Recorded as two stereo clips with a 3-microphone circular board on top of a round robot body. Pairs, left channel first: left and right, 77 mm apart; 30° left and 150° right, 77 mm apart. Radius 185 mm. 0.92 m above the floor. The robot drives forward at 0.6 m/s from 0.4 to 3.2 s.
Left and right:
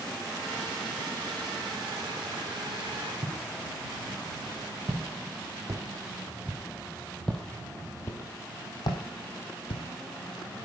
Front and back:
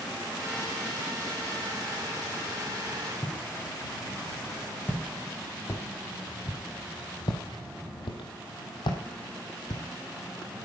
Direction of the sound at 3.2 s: 50° right.